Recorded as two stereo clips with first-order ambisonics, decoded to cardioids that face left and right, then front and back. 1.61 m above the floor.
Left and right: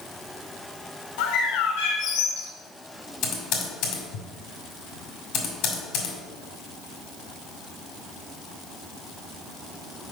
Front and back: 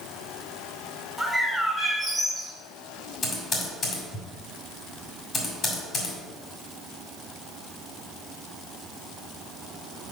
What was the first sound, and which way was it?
A bird, 85° left.